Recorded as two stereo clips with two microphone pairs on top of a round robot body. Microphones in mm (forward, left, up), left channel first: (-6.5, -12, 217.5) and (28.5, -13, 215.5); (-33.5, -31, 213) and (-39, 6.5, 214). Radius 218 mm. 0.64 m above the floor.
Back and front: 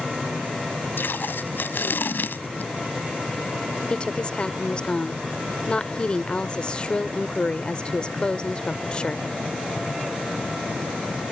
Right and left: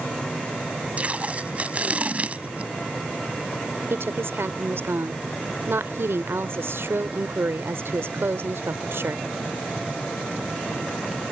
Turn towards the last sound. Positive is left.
turn(degrees=115)